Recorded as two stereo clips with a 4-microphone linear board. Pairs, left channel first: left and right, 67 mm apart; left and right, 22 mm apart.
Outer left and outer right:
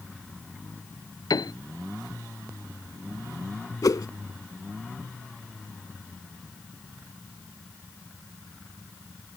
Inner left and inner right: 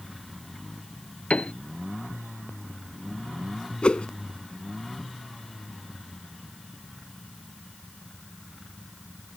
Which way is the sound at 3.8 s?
65° left (ahead or behind).